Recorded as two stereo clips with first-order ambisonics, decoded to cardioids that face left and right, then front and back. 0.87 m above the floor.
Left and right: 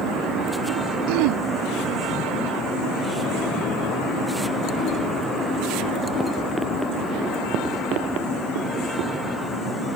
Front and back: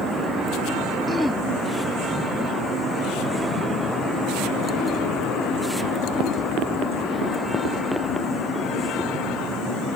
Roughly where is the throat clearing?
Right.